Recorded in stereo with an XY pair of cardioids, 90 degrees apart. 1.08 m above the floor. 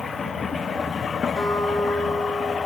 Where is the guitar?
15° right, 4 m.